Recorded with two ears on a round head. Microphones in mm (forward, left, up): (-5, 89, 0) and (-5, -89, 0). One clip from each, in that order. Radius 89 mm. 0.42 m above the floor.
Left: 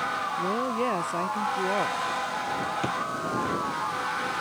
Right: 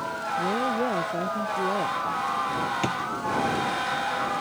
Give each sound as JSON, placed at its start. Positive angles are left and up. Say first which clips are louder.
{"t": 0.4, "sound": "a woman speaking", "louder": "right 5 dB", "side_deg": 60}
{"t": 2.8, "sound": "a drawer", "louder": "right 1 dB", "side_deg": -25}